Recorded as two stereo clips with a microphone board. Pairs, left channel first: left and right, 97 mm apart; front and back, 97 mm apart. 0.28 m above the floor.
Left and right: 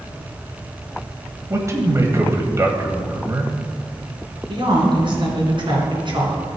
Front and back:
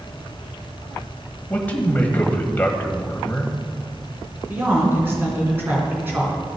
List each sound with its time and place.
1.5 s a man speaking: 60° right, 1.4 m
4.5 s a woman speaking: 115° right, 3.5 m